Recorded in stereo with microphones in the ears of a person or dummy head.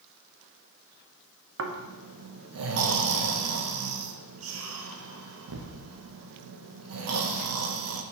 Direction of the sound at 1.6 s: 65° right (ahead or behind).